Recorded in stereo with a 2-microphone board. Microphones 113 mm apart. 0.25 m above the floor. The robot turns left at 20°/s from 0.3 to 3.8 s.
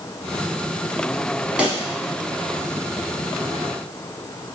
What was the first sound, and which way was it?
A pop, 10° right (ahead or behind).